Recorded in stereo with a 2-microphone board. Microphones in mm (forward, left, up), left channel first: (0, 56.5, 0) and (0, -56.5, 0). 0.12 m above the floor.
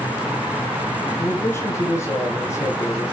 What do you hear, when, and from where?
1.2 s a man speaking: 20° left (ahead or behind), 4 m